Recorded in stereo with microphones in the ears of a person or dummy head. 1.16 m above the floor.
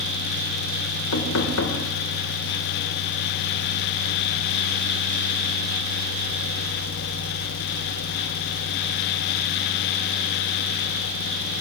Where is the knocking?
80° left, 3 m.